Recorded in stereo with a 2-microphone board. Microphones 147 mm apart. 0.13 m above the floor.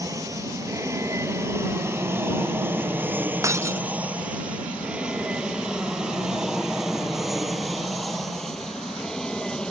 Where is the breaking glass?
20° right (ahead or behind).